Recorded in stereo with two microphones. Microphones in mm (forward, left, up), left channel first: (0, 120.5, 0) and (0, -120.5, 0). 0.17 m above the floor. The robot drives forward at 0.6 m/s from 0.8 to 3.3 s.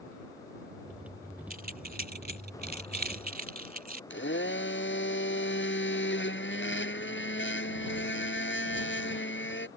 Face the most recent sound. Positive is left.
turn(degrees=55)  # may be behind; listen again after turning